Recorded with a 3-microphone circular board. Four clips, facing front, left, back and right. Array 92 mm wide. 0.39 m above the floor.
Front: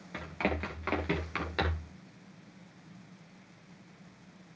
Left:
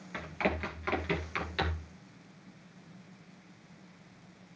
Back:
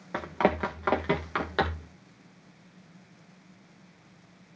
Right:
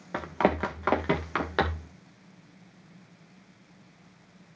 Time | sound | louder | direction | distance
0.1 | running footsteps | right 8 dB, back 8 dB | 130° right | 1.8 m